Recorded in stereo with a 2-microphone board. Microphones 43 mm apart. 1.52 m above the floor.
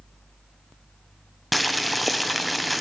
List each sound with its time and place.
1.5 s boiling: centre (ahead or behind), 0.7 m